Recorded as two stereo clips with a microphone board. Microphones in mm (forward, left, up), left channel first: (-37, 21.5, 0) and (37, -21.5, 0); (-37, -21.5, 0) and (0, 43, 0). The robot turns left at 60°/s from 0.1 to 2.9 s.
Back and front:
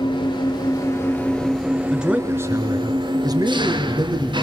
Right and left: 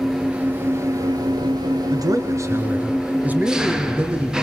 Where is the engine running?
150° left, 2.5 m; by 4.4 s 20° right, 2.5 m.